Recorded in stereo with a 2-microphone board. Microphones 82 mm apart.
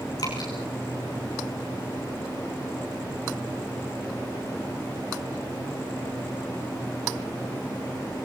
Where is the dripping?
50° left (ahead or behind), 5.5 m.